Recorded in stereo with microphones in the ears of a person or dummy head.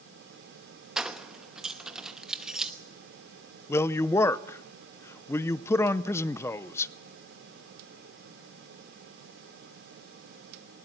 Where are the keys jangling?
10° right (ahead or behind), 0.9 m.